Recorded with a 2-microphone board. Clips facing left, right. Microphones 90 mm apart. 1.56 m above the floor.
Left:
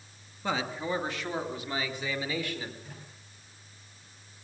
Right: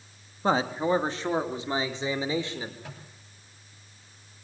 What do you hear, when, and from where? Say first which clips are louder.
0.4 s a man speaking: right 7 dB; 35° right (ahead or behind), 2.5 m; by 2.7 s 25° right (ahead or behind), 5 m
2.8 s a microwave: right 3 dB; 80° right, 9 m